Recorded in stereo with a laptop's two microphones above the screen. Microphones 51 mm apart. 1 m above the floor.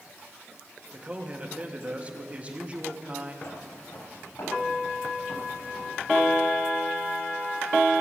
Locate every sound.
0.9 s a man speaking: 25° right (ahead or behind), 1.9 m
3.4 s footsteps: 80° left, 6 m; by 6.4 s 65° left (ahead or behind), 3.5 m